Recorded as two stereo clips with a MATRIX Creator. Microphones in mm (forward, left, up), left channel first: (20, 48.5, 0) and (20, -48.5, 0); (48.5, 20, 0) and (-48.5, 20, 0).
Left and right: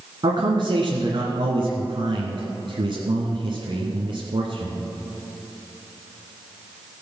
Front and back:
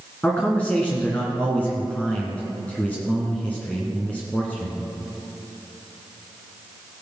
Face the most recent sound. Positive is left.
turn(degrees=-70)